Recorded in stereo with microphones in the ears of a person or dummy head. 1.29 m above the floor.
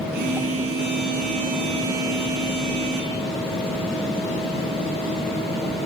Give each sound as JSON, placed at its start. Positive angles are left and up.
{"t": 0.1, "sound": "a phone buzzing", "side_deg": -60, "distance_m": 4.5}